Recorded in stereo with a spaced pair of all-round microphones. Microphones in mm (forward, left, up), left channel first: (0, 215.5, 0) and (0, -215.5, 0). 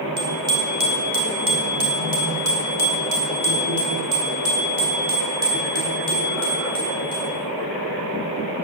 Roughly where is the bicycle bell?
Right.